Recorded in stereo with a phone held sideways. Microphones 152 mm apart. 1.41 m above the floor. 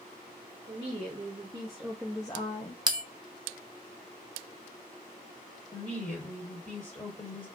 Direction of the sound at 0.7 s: 45° right (ahead or behind).